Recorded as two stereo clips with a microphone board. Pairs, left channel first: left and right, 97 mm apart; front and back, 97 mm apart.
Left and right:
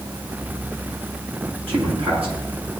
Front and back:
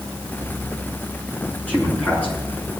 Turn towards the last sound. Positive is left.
turn(degrees=-75)